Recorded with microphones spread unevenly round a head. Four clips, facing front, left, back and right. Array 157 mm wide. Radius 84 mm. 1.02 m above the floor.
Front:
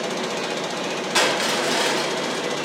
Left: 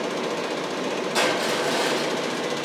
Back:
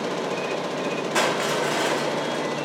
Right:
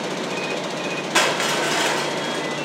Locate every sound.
1.1 s crushing: 65° right, 2.0 m